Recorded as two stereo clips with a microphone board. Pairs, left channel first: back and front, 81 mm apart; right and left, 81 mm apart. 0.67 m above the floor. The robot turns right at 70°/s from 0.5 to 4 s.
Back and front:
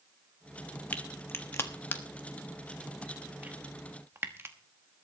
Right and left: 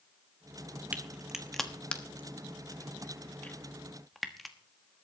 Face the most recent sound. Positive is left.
turn(degrees=-5)